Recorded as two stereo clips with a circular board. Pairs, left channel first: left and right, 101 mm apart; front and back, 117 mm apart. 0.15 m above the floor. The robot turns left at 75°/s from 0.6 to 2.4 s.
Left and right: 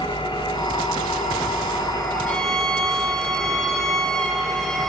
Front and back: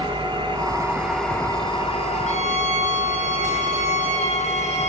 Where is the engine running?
130° left, 8.5 m; by 4.9 s 5° right, 8.5 m.